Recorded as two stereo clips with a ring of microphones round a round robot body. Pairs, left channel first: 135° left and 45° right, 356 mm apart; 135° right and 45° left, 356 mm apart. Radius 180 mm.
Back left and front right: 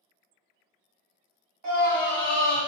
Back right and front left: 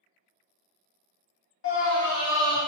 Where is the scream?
85° right, 1.6 m.